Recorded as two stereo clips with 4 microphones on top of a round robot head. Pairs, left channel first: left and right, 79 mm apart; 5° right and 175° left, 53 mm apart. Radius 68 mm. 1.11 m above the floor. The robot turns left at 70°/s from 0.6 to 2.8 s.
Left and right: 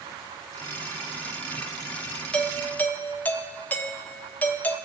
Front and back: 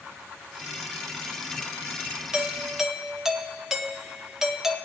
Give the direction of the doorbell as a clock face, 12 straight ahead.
7 o'clock.